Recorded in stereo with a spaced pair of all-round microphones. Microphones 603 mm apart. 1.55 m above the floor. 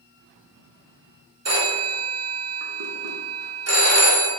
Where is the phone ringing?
25° right (ahead or behind), 0.7 m.